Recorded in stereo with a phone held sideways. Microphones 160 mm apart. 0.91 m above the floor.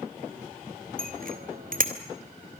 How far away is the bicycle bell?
About 2.5 m.